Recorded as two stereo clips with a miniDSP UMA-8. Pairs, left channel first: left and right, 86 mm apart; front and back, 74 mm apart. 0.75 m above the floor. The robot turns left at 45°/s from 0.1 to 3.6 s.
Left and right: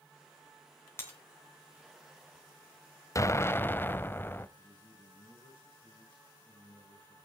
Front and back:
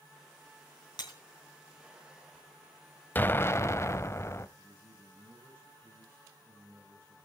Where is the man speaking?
120° left, 7 m.